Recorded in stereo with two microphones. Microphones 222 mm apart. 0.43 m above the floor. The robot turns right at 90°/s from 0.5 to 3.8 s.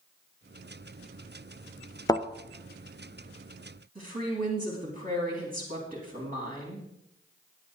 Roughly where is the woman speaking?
Right.